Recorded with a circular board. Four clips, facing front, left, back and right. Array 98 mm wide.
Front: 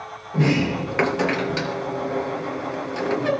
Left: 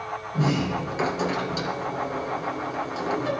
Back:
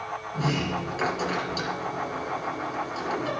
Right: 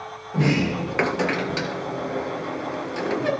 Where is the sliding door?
40° right, 3 m.